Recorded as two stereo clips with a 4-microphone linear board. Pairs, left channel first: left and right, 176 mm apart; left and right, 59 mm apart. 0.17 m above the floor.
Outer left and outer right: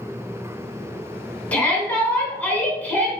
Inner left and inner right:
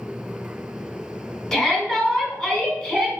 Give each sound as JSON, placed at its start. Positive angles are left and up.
{"t": 1.5, "sound": "a shout", "side_deg": 10, "distance_m": 1.1}